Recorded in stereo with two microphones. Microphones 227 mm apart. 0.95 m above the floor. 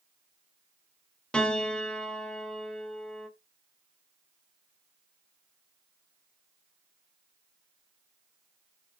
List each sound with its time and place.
1.3 s a piano: 5° left (ahead or behind), 1.5 m